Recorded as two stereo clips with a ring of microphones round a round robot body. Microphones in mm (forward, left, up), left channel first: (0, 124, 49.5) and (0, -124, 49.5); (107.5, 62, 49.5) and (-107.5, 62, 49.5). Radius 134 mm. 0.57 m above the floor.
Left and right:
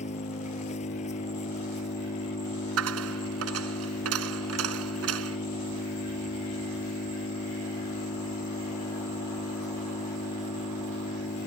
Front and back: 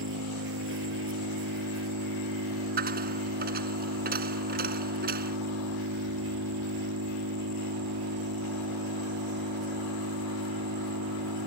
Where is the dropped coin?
125° right.